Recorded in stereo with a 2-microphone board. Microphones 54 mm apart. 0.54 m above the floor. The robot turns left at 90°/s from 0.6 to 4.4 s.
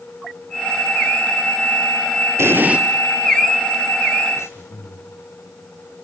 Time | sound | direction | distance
2.4 | an explosion | 125° right | 1.7 m
4.3 | breathing | 65° left (ahead or behind) | 5 m